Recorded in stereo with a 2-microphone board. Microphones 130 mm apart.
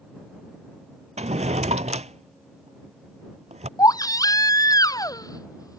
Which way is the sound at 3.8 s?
30° left (ahead or behind).